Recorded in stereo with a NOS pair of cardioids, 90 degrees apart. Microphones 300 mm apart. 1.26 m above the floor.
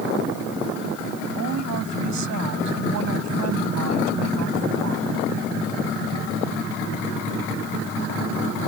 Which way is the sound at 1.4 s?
65° right.